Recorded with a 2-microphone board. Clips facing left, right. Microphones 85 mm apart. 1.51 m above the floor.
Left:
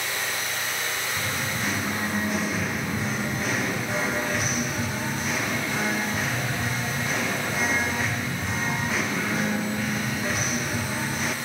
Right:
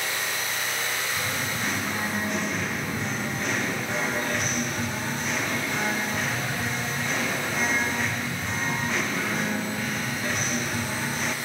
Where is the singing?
Centre (ahead or behind), 0.6 m.